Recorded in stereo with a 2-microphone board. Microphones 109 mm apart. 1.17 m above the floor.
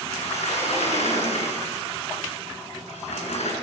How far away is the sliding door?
About 9.5 m.